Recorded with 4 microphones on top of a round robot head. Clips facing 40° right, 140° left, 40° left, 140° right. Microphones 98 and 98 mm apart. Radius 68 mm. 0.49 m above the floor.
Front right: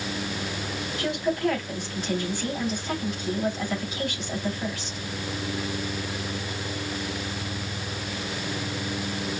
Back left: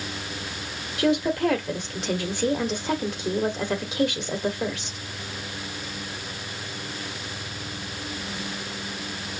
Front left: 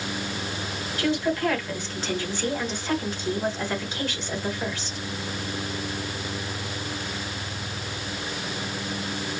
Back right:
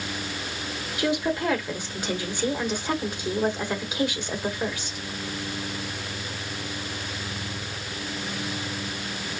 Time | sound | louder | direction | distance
1.0 | a woman speaking | back left 5 dB, front left 1 dB | 140° left | 1.7 m